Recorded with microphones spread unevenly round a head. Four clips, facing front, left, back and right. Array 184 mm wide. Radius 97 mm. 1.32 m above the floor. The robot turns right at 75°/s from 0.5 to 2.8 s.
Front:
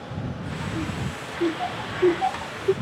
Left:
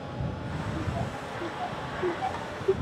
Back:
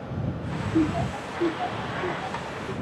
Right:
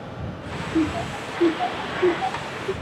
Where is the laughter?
135° right; by 2.7 s 15° left.